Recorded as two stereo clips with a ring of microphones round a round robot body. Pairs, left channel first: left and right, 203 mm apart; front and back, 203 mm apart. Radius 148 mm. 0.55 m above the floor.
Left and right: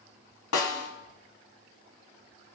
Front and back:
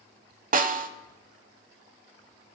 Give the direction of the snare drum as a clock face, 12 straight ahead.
8 o'clock.